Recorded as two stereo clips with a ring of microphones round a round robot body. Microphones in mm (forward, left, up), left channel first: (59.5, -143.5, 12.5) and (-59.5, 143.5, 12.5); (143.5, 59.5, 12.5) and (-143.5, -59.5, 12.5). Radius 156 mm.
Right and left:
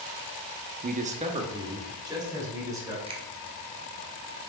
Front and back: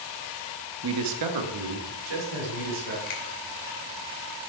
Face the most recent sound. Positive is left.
turn(degrees=40)